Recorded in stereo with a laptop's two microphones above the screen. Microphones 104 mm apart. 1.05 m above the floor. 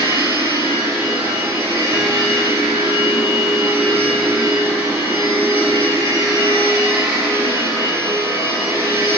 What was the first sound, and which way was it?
A machine running, 25° right (ahead or behind).